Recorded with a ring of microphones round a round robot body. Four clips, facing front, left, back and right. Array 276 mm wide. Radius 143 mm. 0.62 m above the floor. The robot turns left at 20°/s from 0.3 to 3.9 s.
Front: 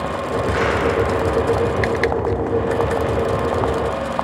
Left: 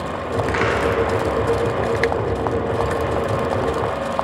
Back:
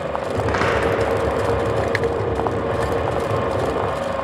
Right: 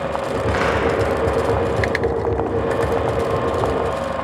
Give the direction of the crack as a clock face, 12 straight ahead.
7 o'clock.